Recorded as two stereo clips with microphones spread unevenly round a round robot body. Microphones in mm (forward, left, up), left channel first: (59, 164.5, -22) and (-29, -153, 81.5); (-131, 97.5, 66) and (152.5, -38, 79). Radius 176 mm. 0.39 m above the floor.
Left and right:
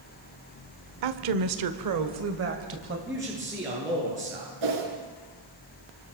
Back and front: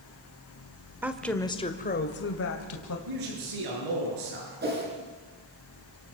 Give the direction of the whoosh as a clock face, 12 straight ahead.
3 o'clock.